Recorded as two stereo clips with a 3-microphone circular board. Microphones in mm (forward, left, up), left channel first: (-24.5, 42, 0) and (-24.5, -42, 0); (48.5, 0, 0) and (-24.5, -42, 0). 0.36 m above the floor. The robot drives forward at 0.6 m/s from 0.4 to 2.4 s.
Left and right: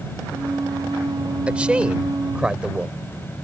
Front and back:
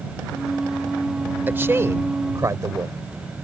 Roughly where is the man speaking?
Behind right.